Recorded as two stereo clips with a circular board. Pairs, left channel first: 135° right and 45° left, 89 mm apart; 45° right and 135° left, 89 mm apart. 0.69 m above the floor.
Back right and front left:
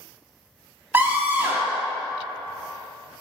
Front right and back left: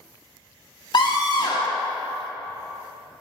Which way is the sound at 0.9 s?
20° right.